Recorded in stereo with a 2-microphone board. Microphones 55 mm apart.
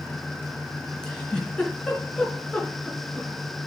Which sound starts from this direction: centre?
A giggle, at 1.0 s.